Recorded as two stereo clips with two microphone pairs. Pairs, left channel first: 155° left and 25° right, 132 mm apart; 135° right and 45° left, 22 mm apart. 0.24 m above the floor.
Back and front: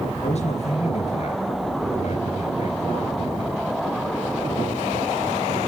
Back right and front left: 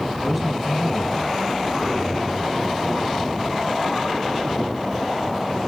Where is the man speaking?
125° left, 3.5 m.